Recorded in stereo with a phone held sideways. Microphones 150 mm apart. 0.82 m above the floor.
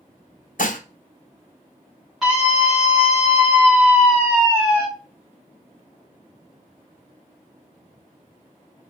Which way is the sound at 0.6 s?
70° left (ahead or behind).